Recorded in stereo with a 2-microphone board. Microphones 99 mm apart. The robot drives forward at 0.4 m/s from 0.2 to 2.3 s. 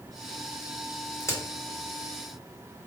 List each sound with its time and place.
1.2 s a crack: 30° left (ahead or behind), 1.0 m; by 1.4 s 25° left (ahead or behind), 1.0 m